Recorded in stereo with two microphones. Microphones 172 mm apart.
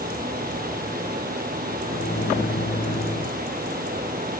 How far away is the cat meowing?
I don't hear a cat meowing.